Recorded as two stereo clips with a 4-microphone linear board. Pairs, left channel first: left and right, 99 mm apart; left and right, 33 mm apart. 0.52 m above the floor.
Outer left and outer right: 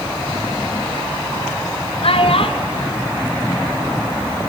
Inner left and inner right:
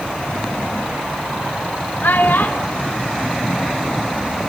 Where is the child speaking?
70° left (ahead or behind), 1.4 m; by 4.4 s 20° left (ahead or behind), 3 m.